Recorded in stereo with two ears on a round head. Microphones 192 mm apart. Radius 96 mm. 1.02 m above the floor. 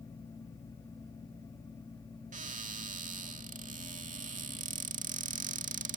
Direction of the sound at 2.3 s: 40° right (ahead or behind).